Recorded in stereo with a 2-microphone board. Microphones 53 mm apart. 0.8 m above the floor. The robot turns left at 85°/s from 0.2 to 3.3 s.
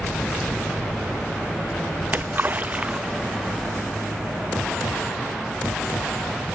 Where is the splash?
35° right (ahead or behind), 0.5 m; by 3.7 s 5° right (ahead or behind), 0.5 m.